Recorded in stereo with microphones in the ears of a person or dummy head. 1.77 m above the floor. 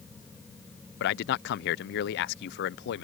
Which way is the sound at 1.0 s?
65° left (ahead or behind).